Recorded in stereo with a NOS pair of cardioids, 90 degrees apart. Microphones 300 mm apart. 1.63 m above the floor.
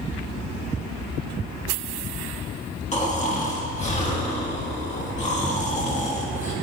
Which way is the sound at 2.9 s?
25° left.